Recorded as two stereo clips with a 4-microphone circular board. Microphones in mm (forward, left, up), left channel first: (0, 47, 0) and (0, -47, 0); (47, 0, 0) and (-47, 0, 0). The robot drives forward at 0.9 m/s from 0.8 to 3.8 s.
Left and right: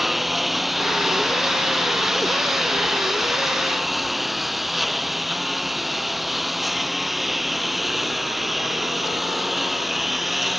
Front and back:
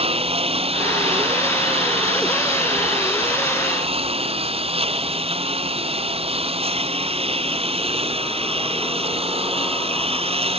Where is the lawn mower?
Straight behind.